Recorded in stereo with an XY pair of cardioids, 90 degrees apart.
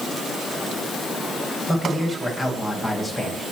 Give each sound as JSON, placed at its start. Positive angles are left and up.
{"t": 1.7, "sound": "a man speaking", "azimuth_deg": -5, "distance_m": 10.0}